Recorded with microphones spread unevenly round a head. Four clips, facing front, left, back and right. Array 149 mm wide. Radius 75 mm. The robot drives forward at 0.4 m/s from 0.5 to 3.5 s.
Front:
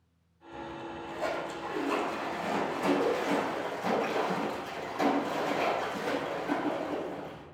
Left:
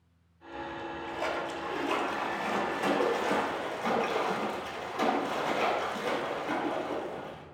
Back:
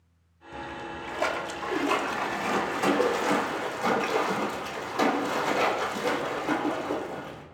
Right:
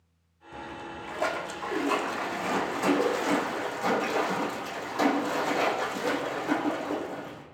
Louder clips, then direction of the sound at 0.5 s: Left 1 dB, back 3 dB; 145° right.